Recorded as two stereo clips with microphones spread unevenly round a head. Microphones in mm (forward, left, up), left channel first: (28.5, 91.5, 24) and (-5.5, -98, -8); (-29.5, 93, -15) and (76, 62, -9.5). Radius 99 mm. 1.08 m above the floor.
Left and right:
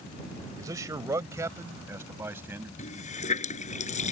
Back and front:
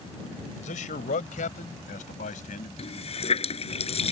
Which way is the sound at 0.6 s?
175° right.